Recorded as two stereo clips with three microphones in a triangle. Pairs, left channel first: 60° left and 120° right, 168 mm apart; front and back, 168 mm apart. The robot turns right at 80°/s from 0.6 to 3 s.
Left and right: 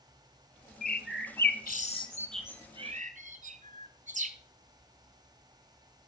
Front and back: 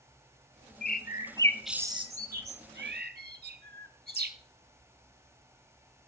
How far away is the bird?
About 1.0 m.